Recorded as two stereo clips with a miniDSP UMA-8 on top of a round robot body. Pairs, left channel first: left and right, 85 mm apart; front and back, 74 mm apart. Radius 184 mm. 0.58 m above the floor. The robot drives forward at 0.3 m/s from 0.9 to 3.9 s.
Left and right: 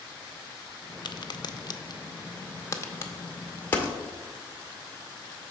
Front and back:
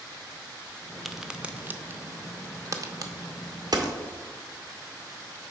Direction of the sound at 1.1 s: 90° left.